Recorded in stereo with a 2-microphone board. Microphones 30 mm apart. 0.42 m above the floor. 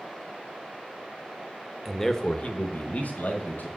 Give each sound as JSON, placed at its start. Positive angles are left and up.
{"t": 1.9, "sound": "a man speaking", "side_deg": 0, "distance_m": 0.8}